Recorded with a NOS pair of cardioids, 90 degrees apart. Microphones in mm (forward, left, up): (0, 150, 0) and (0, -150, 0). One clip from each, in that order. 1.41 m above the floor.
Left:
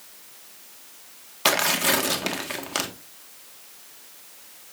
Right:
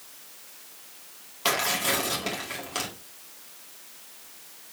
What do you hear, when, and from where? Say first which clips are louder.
1.4 s tearing paper: left 4 dB; 40° left, 1.8 m